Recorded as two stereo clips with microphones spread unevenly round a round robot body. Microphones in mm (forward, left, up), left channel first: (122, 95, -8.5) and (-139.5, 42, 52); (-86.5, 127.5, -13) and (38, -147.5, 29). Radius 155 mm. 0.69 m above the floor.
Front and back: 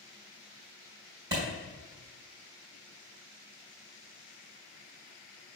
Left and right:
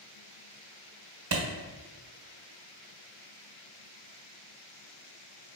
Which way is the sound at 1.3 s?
110° right.